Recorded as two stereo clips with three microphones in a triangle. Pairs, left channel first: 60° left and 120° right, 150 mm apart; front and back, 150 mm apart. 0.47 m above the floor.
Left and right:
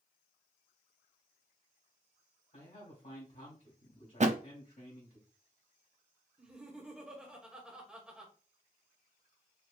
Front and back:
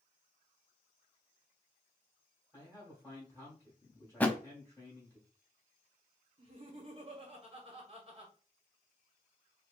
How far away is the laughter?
About 1.5 m.